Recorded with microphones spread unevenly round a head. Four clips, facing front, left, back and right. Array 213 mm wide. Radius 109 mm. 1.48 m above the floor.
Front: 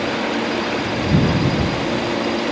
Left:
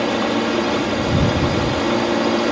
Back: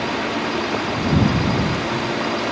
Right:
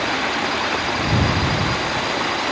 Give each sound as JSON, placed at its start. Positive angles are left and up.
{"t": 0.0, "sound": "a drone", "azimuth_deg": 65}